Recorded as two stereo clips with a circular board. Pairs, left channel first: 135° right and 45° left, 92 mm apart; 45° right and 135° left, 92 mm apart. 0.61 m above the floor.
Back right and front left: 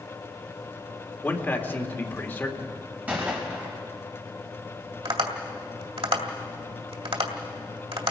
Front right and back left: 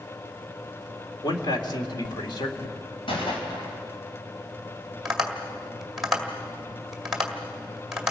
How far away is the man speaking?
About 2 m.